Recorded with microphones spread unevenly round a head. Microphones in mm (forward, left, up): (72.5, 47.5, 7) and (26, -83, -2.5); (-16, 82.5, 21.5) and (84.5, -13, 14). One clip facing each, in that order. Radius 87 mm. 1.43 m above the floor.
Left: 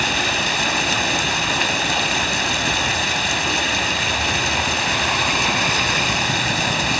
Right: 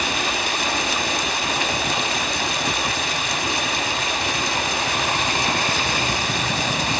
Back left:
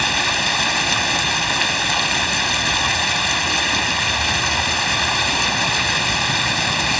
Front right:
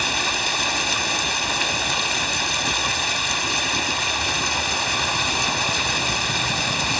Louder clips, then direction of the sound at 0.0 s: Left 2 dB, back left 3 dB; 110° left.